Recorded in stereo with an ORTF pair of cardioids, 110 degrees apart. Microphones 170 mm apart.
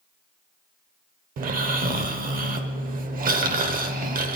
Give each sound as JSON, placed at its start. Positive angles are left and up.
{"t": 1.4, "sound": "snoring", "azimuth_deg": -55, "distance_m": 1.1}